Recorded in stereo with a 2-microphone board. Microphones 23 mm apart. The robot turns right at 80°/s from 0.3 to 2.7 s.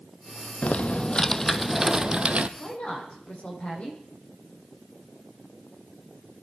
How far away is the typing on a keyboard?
About 0.6 m.